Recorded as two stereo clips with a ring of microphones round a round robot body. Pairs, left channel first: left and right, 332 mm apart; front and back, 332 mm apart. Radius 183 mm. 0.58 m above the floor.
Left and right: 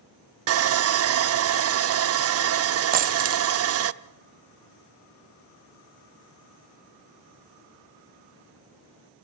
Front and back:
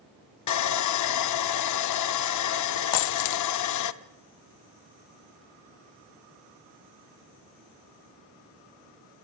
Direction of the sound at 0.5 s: 40° right.